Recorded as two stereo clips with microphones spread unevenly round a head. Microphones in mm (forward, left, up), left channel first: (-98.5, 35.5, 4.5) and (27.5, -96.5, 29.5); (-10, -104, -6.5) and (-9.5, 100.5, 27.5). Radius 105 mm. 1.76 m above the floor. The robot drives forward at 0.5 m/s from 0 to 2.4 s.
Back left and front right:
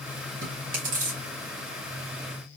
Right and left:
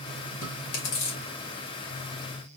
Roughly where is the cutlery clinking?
I don't hear cutlery clinking.